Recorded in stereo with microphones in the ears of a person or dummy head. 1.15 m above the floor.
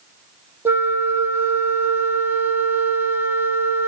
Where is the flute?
15° right (ahead or behind), 0.8 m.